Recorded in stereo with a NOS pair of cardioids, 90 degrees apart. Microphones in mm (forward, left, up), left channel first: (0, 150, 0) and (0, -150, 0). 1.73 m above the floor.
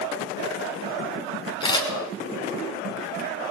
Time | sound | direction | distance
1.6 | a camera shutter | 15° left | 4.5 m